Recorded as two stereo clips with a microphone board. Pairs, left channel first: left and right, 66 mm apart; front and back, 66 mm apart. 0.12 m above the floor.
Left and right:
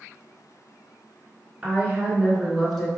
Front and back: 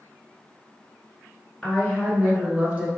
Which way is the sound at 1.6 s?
65° right.